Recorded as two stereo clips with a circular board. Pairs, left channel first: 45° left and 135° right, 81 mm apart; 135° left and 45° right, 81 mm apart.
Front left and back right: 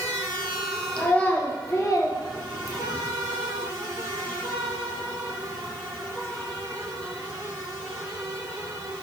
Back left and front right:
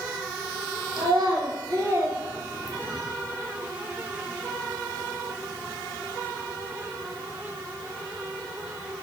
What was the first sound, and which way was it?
A child speaking, 35° right.